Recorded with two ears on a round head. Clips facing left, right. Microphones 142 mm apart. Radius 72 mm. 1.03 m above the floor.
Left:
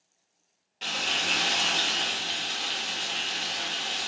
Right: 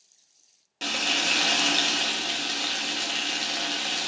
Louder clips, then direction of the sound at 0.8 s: Right 3 dB; 55° right (ahead or behind).